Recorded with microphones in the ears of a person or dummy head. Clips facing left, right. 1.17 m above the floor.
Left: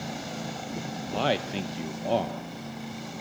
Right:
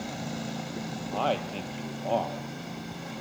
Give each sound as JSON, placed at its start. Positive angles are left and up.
{"t": 1.1, "sound": "a man speaking", "side_deg": 20, "distance_m": 0.8}